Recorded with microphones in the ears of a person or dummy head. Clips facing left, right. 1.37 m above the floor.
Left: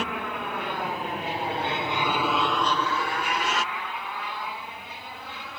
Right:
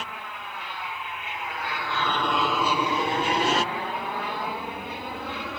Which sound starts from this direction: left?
An aircraft, at 0.0 s.